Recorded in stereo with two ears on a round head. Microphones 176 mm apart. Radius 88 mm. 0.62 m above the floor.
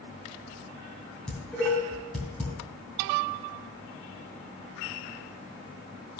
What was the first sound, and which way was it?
Dishes clattering, 5° left (ahead or behind).